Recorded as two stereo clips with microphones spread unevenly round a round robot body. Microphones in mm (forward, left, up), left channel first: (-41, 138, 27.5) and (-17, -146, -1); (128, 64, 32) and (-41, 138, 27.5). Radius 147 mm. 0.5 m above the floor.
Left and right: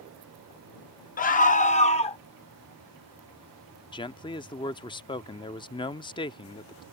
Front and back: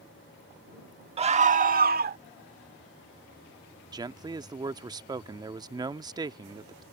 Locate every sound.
1.2 s a scream: 140° left; by 2.2 s 165° left
3.9 s a man speaking: 155° left